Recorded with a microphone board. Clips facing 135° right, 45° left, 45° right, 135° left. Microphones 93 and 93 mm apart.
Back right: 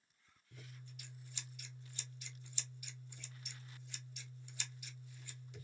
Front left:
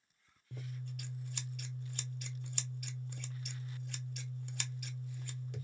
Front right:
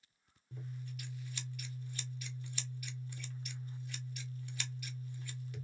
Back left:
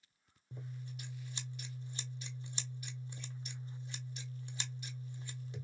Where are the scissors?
70° left, 0.8 m.